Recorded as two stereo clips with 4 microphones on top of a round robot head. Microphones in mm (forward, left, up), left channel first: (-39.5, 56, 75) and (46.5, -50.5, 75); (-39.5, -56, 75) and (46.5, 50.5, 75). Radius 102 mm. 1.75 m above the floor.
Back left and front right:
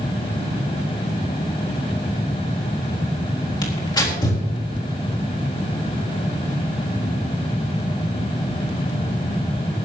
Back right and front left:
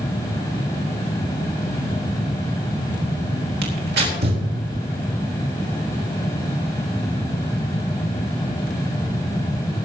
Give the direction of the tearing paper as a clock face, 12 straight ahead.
10 o'clock.